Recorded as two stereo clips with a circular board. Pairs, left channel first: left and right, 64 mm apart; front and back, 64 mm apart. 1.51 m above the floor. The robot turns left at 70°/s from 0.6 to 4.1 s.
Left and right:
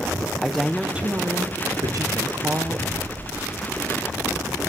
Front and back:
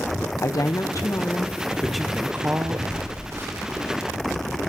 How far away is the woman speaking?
About 0.8 m.